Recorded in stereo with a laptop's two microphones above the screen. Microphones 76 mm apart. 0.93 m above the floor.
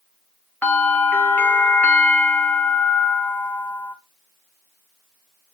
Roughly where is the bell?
Left.